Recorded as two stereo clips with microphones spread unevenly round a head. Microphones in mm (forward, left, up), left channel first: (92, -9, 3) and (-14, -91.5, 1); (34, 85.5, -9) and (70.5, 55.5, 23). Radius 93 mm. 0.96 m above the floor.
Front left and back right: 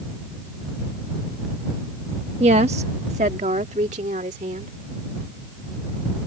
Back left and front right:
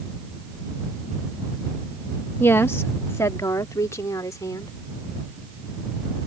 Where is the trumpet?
I don't hear a trumpet.